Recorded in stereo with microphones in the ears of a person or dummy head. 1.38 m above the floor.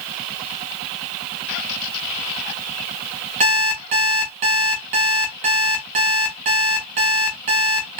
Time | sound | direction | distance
3.4 | an alarm clock | 45° right (ahead or behind) | 0.8 m